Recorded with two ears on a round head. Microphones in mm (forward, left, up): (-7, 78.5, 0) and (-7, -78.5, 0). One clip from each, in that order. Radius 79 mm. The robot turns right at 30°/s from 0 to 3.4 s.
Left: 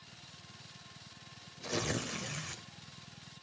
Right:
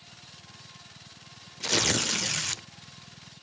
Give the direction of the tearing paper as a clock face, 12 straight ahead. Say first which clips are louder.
Right 11 dB; 4 o'clock.